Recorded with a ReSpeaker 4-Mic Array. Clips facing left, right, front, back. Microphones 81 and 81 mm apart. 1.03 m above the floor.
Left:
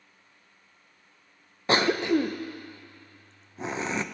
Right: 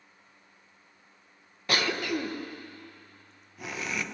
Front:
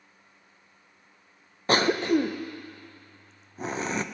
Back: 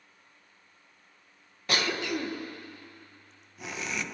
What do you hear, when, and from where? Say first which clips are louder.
1.7 s a cough: left 6 dB, front 8 dB; 40° left, 0.7 m